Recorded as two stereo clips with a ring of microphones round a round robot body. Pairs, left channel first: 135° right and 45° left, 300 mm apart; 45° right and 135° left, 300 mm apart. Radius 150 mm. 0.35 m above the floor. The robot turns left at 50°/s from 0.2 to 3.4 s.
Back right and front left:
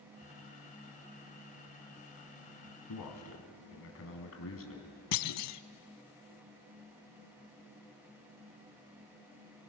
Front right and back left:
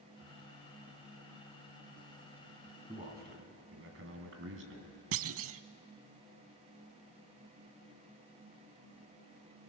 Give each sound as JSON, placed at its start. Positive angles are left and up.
{"t": 2.9, "sound": "a man speaking", "azimuth_deg": -150, "distance_m": 3.0}
{"t": 5.1, "sound": "a clunk", "azimuth_deg": -175, "distance_m": 0.5}